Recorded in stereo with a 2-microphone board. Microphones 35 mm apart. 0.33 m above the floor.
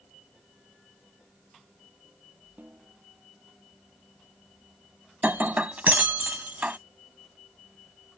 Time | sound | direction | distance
2.6 | a snare drum | 65° right (ahead or behind) | ?
5.2 | breaking glass | 45° right (ahead or behind) | ?